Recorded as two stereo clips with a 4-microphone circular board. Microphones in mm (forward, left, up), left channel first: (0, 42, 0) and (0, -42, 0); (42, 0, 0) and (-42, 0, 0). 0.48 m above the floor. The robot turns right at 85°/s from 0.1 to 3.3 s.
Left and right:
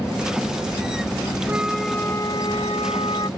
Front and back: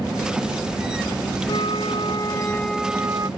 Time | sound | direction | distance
1.5 | a flute | 25° right | ?